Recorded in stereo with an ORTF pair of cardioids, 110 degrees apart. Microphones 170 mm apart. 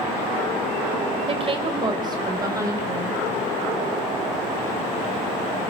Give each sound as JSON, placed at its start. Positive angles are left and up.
{"t": 1.3, "sound": "a woman speaking", "azimuth_deg": -35, "distance_m": 5.0}